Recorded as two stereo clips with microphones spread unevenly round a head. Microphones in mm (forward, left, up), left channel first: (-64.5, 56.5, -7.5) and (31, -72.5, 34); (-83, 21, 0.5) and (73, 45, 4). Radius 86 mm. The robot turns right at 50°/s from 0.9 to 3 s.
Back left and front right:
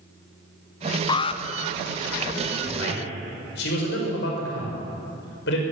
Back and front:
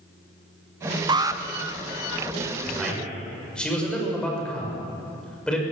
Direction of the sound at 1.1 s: 70° left.